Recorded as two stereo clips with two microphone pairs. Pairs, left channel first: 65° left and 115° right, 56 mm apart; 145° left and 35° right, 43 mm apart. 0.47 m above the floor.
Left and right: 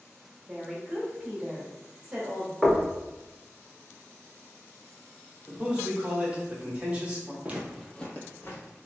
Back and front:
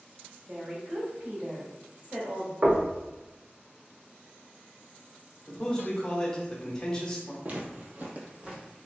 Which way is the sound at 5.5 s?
165° right.